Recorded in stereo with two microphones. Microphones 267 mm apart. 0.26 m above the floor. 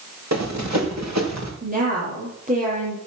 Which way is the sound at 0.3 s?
80° right.